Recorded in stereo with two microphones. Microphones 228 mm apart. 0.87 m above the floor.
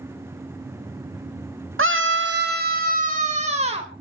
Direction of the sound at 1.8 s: 70° right (ahead or behind).